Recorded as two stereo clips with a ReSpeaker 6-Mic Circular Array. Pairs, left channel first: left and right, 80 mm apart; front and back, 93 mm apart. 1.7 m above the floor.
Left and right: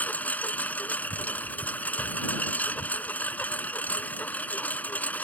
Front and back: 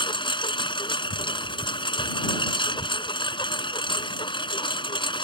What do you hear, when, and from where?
0.0 s a lawn mower: 20° left